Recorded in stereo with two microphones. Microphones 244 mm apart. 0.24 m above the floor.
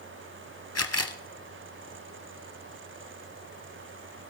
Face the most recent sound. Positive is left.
turn(degrees=90)